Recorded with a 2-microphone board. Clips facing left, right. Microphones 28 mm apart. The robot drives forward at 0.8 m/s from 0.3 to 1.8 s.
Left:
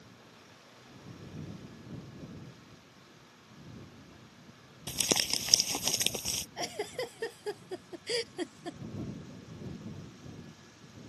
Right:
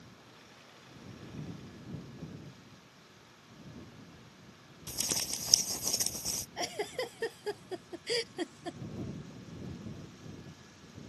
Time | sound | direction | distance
4.9 | crumpling | 70° left (ahead or behind) | ?
6.6 | a giggle | 5° right (ahead or behind) | ?